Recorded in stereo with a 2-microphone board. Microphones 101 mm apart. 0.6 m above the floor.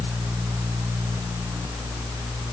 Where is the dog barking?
I don't hear a dog barking.